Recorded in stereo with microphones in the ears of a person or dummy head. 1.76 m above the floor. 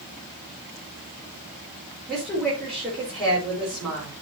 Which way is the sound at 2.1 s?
5° right (ahead or behind).